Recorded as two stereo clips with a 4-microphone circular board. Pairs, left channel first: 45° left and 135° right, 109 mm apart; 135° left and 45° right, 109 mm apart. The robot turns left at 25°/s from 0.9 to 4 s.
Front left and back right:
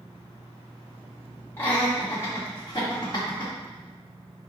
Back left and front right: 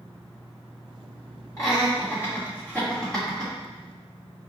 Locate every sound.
1.6 s laughter: 100° left, 1.3 m; by 3.5 s 50° left, 1.3 m